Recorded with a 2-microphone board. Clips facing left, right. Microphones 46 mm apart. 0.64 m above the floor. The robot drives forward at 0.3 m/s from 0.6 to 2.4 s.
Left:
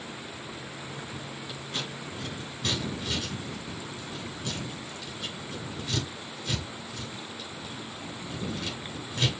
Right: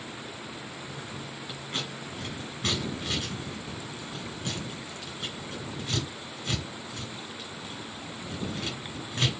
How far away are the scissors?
About 7.5 m.